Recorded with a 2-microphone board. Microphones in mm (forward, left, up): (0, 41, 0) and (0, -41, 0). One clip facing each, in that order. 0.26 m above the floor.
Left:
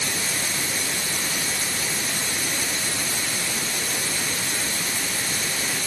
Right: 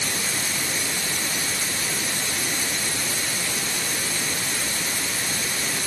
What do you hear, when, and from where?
Only background noise.